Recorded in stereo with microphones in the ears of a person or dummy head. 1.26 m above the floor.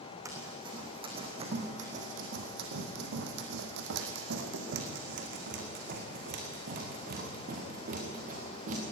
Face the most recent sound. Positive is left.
turn(degrees=-45)  # may be behind; listen again after turning